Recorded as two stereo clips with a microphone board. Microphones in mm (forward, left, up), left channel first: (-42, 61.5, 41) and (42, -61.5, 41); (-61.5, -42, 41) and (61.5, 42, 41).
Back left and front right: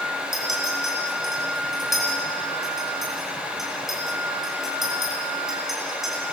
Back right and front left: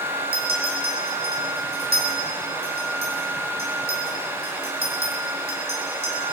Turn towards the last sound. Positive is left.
turn(degrees=35)